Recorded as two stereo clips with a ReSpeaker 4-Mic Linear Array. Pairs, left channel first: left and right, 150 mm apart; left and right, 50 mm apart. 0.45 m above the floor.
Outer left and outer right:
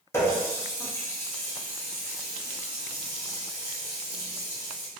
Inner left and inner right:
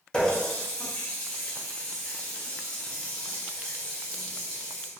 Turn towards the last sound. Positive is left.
turn(degrees=15)  # may be behind; listen again after turning